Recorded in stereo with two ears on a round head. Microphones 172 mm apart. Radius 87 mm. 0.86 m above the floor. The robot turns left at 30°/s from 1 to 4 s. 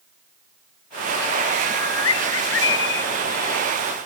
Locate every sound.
1.6 s a bird: 95° left, 0.9 m; by 3.0 s 50° left, 0.9 m